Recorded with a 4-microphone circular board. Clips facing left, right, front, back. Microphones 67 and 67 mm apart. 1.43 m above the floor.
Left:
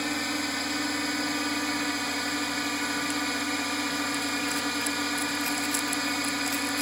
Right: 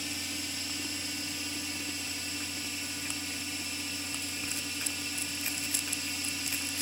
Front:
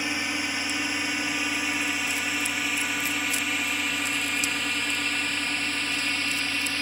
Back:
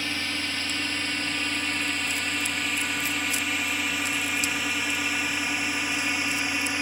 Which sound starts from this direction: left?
A drone, at 0.0 s.